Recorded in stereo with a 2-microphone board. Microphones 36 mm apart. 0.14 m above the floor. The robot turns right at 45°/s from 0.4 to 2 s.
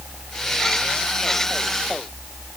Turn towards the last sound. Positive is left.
No sound to turn to.